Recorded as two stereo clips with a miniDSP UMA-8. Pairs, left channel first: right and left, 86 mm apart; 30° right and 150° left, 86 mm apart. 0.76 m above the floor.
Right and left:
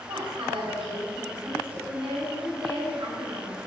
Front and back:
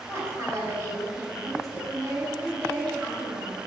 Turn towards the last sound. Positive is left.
turn(degrees=95)